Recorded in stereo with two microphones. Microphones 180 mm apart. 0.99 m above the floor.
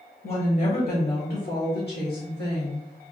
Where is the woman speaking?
45° left (ahead or behind), 1.4 m; by 2.9 s 65° left (ahead or behind), 1.8 m.